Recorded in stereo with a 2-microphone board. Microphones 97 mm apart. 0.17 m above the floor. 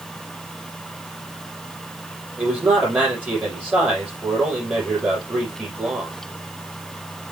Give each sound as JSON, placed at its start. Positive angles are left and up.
{"t": 2.4, "sound": "a man speaking", "side_deg": -15, "distance_m": 6.0}